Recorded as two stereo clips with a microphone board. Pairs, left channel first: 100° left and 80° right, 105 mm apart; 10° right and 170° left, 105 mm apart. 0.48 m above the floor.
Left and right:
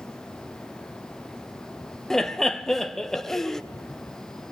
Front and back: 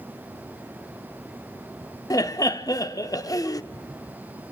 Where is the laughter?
20° left, 0.9 m.